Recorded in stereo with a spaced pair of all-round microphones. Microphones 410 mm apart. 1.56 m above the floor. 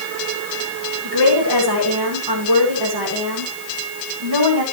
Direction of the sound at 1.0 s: 65° right (ahead or behind).